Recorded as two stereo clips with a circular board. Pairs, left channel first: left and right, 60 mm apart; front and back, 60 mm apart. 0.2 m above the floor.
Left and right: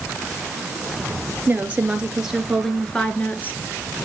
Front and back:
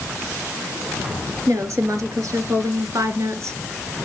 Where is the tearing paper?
No tearing paper in this recording.